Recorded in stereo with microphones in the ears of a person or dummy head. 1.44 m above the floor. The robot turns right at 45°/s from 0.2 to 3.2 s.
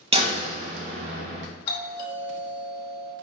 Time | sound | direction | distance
0.1 | a door slam | 145° right | 0.8 m
1.7 | a doorbell | 40° left | 1.0 m